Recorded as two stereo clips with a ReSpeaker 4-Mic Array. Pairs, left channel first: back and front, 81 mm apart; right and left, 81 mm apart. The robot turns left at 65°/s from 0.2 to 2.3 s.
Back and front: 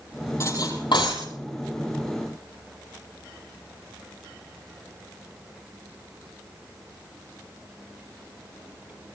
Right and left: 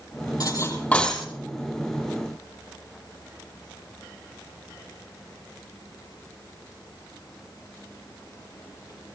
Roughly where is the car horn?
I don't hear a car horn.